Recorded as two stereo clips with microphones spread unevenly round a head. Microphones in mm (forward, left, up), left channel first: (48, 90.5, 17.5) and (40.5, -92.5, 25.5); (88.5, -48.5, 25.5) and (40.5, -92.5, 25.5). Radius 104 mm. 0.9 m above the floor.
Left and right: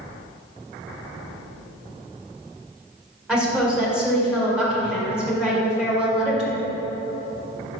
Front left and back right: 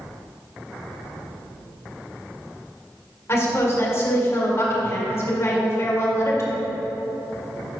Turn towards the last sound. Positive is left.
turn(degrees=-5)